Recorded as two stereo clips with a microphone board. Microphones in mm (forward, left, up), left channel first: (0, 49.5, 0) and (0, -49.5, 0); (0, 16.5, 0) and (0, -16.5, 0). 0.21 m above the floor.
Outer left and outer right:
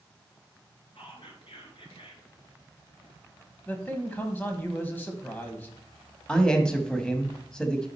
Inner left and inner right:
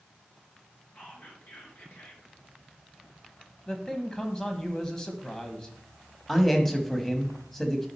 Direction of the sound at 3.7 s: 20° left (ahead or behind).